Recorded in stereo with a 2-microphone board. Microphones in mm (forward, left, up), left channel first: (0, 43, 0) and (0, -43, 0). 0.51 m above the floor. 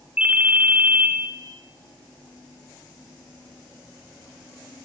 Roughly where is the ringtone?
Centre.